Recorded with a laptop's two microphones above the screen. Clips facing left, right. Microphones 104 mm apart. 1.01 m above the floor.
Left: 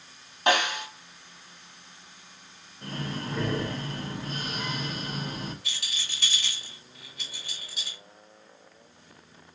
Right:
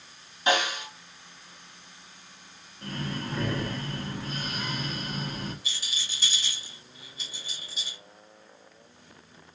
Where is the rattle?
65° left (ahead or behind), 1.8 m.